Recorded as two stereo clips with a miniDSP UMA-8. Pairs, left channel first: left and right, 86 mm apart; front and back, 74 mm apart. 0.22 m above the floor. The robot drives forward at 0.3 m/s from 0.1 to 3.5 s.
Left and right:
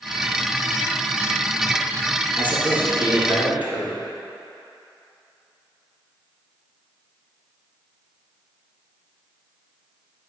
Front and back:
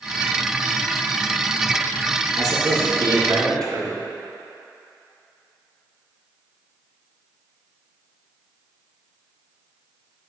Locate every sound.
2.4 s a man speaking: 160° right, 2 m; by 4.0 s 165° right, 2.5 m